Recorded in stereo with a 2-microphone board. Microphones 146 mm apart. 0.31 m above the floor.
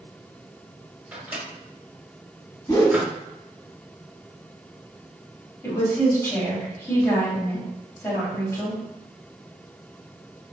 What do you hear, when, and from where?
1.1 s a microwave: 10° right (ahead or behind), 1.1 m
2.7 s a whoosh: 25° left (ahead or behind), 1.0 m
5.6 s a woman speaking: 20° left (ahead or behind), 1.9 m